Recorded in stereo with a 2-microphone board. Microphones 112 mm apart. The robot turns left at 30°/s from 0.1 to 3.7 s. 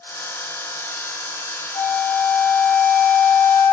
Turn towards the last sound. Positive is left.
turn(degrees=135)